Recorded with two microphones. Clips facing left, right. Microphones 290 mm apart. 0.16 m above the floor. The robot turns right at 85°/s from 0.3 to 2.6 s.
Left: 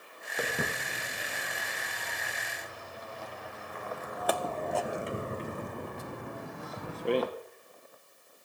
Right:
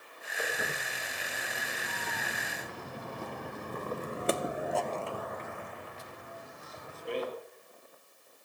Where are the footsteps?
85° left, 3 m; by 7.3 s 75° left (ahead or behind), 1.8 m.